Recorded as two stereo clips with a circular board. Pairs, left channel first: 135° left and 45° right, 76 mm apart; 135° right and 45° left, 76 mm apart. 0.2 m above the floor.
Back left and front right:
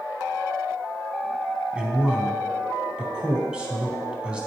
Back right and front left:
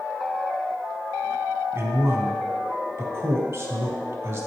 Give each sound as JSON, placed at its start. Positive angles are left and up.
{"t": 1.7, "sound": "a man speaking", "azimuth_deg": 25, "distance_m": 1.3}